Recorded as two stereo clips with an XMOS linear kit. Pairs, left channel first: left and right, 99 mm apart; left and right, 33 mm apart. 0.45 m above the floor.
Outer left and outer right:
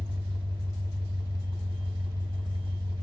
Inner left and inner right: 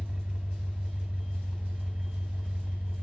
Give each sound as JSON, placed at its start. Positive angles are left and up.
{"t": 0.0, "sound": "an engine running", "side_deg": -60, "distance_m": 0.9}